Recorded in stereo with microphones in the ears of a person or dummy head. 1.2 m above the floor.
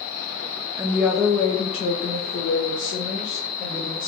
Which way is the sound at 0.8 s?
15° right (ahead or behind).